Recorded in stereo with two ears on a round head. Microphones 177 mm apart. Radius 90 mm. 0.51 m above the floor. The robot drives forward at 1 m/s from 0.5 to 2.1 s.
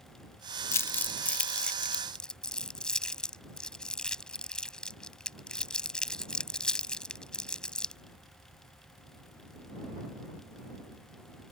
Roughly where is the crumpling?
Centre.